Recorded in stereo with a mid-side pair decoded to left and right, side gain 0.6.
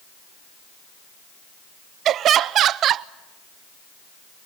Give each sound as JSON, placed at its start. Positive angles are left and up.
{"t": 2.0, "sound": "laughter", "azimuth_deg": -55, "distance_m": 0.7}